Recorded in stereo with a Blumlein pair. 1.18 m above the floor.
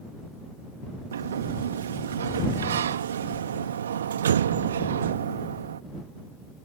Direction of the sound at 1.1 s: 65° right.